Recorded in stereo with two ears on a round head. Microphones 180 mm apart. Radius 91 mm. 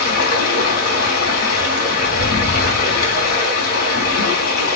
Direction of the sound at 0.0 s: 45° left (ahead or behind).